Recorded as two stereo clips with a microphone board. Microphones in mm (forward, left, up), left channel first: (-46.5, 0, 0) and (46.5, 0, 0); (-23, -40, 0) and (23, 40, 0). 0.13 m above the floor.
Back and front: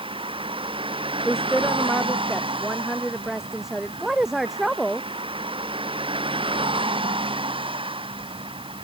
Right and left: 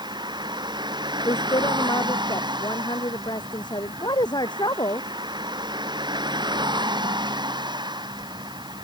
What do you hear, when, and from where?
0.0 s a vehicle: 20° left
1.2 s a woman speaking: 85° right